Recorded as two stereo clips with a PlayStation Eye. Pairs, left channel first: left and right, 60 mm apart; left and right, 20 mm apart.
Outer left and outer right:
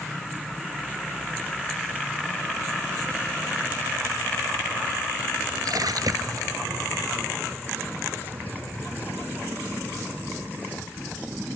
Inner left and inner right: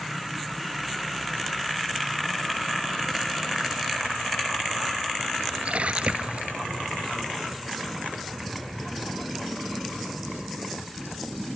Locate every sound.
5.7 s a splash: 85° right